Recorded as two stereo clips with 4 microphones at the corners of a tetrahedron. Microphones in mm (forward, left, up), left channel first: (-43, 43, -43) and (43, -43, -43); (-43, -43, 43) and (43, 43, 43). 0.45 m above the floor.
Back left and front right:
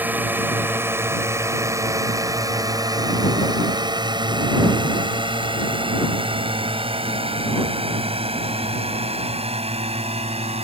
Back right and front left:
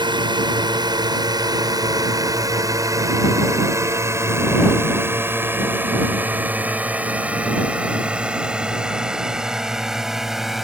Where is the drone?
25° left; by 10.6 s 40° right.